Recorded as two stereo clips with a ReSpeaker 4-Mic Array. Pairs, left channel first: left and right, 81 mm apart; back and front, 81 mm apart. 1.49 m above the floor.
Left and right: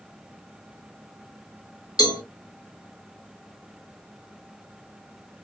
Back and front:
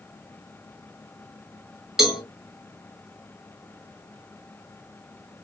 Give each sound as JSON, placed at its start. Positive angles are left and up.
{"t": 2.0, "sound": "a cowbell", "azimuth_deg": 85, "distance_m": 1.9}